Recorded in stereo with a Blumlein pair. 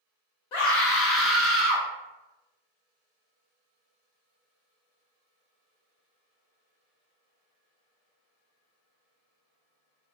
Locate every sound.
0.5 s a scream: 45° left, 1.1 m; by 1.9 s 25° right, 1.1 m